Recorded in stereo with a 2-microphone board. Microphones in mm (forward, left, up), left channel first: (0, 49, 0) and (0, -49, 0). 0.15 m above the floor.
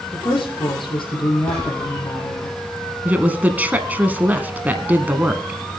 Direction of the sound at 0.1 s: 60° left (ahead or behind).